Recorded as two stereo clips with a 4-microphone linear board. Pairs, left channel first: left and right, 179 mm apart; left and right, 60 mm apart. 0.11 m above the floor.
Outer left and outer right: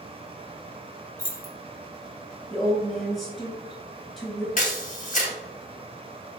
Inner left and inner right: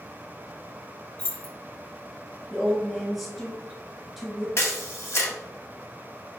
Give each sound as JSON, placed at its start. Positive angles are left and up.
{"t": 1.2, "sound": "keys jangling", "side_deg": 20, "distance_m": 1.4}
{"t": 2.5, "sound": "a woman speaking", "side_deg": 0, "distance_m": 1.8}
{"t": 4.6, "sound": "a camera shutter", "side_deg": 50, "distance_m": 0.9}